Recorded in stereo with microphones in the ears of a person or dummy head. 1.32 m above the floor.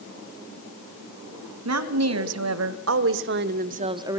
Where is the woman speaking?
80° right, 1.9 m; by 4.2 s 10° right (ahead or behind), 0.8 m.